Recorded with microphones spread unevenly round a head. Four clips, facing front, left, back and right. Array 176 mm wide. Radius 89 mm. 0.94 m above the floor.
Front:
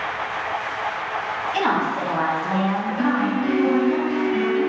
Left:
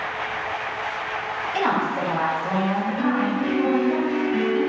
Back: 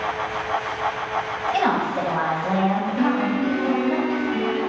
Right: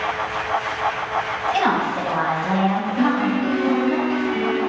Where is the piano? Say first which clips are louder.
Right 5 dB, front 1 dB; 150° right, 3.5 m.